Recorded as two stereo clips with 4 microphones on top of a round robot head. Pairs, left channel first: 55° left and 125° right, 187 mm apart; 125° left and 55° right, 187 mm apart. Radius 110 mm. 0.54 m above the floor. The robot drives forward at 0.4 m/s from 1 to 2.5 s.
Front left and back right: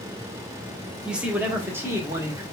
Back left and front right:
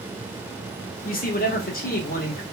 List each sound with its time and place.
1.1 s a man speaking: 150° left, 0.9 m; by 2.4 s 160° left, 1.4 m